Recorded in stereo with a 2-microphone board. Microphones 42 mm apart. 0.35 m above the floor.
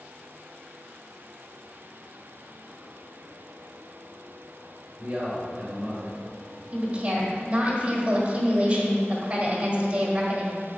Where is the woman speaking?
30° right (ahead or behind), 1.6 m.